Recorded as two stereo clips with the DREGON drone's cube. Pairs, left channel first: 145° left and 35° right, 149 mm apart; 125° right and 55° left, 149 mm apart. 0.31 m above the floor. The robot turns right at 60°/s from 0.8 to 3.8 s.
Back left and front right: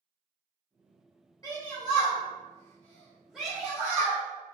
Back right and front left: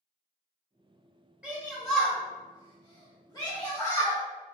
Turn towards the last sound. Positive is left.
turn(degrees=-90)